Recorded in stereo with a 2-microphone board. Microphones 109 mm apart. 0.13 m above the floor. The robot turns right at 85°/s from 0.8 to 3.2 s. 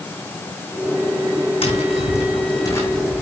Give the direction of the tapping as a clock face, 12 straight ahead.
10 o'clock.